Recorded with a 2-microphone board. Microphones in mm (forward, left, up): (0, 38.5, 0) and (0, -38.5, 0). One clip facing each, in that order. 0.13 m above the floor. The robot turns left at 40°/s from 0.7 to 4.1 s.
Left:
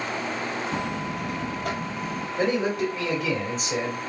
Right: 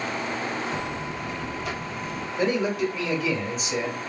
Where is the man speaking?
110° left, 1.8 m; by 4.0 s 45° left, 1.8 m.